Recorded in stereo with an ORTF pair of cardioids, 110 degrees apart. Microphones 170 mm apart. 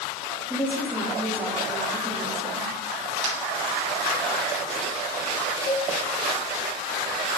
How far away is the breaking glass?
About 4 m.